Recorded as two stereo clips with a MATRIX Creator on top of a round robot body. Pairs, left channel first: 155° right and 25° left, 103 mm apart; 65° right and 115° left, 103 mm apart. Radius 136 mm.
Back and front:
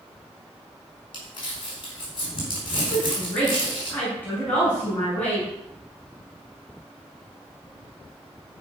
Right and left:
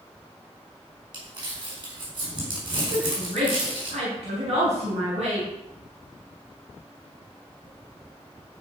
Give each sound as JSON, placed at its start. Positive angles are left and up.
{"t": 1.1, "sound": "crumpling", "azimuth_deg": 160, "distance_m": 5.5}
{"t": 2.9, "sound": "a woman speaking", "azimuth_deg": 125, "distance_m": 6.0}